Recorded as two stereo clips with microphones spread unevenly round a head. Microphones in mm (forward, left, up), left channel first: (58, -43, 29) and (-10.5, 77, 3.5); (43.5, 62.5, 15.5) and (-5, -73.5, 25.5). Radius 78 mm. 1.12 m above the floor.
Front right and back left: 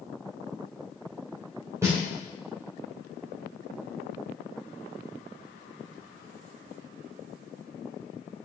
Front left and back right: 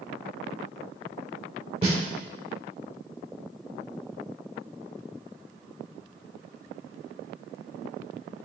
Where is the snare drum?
165° right, 2 m.